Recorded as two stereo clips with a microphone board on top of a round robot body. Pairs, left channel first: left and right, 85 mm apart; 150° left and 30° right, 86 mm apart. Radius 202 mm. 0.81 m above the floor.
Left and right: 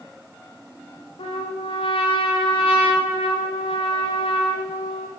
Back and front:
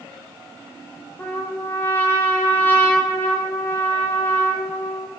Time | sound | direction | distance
1.2 | a trumpet | 85° left | 1.8 m